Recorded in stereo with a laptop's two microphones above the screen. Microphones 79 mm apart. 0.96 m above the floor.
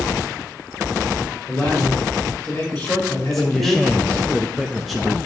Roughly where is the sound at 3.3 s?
Centre.